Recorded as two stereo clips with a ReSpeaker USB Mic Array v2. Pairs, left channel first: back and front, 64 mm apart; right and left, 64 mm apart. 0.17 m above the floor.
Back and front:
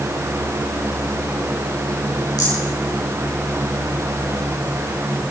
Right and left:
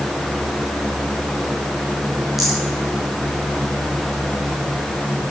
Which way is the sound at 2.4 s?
175° left.